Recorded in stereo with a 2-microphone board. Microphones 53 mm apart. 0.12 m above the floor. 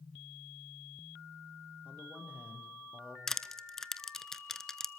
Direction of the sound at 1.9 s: 25° right (ahead or behind).